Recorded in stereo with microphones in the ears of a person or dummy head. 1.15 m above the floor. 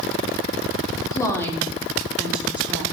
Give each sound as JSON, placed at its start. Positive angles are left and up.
{"t": 1.1, "sound": "a woman speaking", "side_deg": 25, "distance_m": 3.0}